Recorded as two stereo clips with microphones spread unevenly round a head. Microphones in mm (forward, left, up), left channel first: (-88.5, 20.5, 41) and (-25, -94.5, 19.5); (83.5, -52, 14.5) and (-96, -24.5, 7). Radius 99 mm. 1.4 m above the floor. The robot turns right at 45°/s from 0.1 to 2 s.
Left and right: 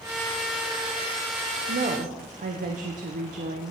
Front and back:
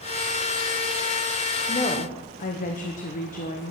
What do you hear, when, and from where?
1.7 s a woman speaking: 70° right, 0.9 m; by 3.7 s 55° right, 0.9 m